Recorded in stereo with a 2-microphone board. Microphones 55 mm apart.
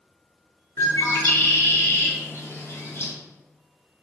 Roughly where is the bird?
Left.